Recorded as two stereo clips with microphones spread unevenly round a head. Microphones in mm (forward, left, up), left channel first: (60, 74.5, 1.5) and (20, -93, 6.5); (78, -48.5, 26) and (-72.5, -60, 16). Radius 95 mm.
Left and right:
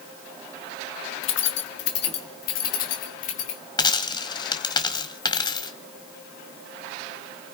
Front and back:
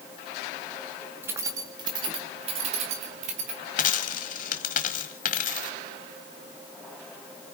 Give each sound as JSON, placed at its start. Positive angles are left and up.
{"t": 1.2, "sound": "keys jangling", "azimuth_deg": 105, "distance_m": 1.1}
{"t": 3.8, "sound": "a dropped coin", "azimuth_deg": 15, "distance_m": 1.2}